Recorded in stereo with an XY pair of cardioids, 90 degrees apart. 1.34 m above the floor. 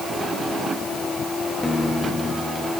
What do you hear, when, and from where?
1.6 s a guitar: 15° left, 5 m